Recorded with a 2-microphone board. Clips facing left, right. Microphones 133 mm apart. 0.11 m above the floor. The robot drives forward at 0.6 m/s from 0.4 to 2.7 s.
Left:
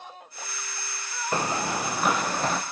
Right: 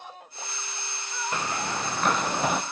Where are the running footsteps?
35° left (ahead or behind), 0.8 m; by 2.6 s 10° right (ahead or behind), 1.0 m.